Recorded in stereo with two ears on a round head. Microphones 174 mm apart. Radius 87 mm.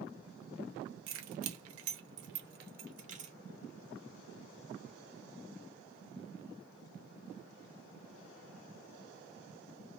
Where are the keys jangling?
65° right (ahead or behind), 0.8 m; by 3.3 s 35° right (ahead or behind), 1.1 m.